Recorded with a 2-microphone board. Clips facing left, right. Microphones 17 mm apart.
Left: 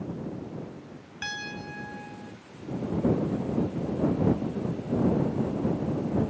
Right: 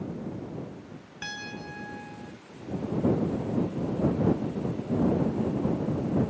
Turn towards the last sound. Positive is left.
turn(degrees=10)  # may be behind; listen again after turning